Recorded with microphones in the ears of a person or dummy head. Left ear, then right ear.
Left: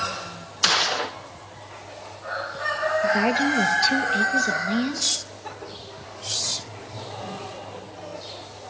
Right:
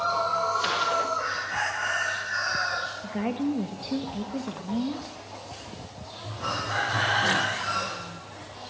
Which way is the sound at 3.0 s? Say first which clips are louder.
Left 10 dB; 45° left (ahead or behind).